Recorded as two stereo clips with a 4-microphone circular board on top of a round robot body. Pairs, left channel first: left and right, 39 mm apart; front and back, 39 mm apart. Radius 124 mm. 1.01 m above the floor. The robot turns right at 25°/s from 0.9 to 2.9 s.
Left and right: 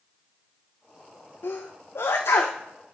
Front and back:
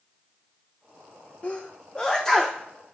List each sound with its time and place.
1.4 s a sneeze: 60° left, 0.7 m; by 2.6 s 90° left, 0.7 m